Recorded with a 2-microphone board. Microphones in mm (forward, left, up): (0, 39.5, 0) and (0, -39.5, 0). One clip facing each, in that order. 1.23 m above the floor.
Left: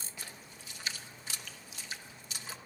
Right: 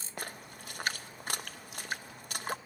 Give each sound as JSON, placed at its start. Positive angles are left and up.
{"t": 0.2, "sound": "a splash", "side_deg": -55, "distance_m": 0.8}